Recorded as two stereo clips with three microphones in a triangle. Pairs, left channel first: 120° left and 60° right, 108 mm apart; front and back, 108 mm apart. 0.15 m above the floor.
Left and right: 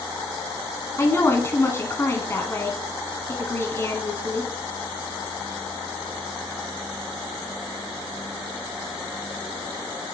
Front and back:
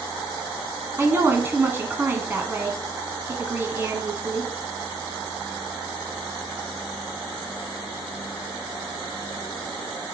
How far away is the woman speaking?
About 1.1 m.